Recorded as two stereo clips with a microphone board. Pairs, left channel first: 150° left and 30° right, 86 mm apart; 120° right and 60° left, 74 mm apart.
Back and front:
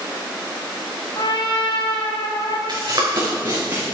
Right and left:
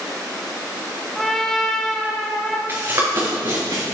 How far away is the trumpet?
About 2.0 m.